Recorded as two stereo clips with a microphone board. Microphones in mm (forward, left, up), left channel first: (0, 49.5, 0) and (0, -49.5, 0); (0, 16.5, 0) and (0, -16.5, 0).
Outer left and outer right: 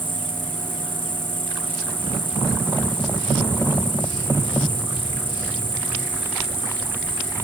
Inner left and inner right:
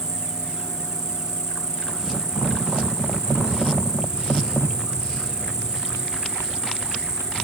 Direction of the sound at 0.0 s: 20° right (ahead or behind).